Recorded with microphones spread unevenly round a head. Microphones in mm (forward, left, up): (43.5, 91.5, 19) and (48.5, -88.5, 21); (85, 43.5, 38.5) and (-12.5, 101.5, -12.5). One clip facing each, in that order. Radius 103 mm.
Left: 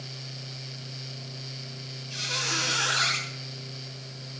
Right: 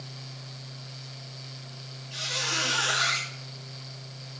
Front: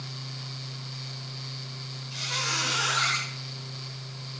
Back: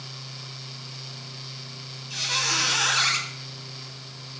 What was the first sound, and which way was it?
A squeak, 145° left.